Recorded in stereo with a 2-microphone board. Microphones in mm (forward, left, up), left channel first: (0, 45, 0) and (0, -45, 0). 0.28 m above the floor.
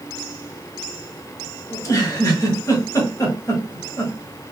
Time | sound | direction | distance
1.7 | a giggle | 35° left (ahead or behind) | 1.4 m